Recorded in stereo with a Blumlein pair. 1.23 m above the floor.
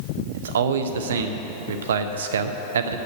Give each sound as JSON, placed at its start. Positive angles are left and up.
{"t": 0.3, "sound": "a man speaking", "azimuth_deg": -60, "distance_m": 0.8}